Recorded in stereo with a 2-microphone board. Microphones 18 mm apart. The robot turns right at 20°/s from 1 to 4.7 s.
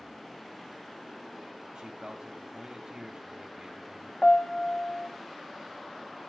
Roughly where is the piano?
Left.